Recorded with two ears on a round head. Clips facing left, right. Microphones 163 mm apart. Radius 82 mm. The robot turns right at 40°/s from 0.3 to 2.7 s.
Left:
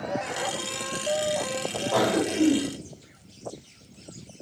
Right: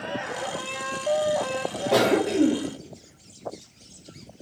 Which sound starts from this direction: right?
A cough, at 1.9 s.